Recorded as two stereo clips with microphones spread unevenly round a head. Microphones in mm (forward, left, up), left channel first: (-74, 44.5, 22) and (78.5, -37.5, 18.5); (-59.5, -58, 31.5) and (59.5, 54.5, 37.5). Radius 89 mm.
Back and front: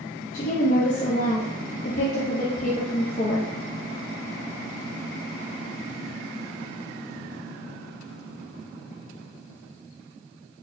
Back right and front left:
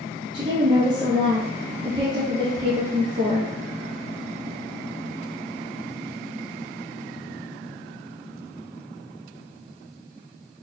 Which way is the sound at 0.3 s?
105° left.